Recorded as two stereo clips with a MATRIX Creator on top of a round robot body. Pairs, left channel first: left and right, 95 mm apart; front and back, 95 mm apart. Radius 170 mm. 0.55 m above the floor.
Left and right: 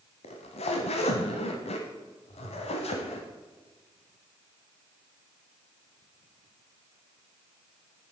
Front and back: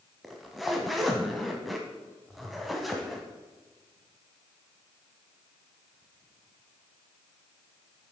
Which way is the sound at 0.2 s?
90° left.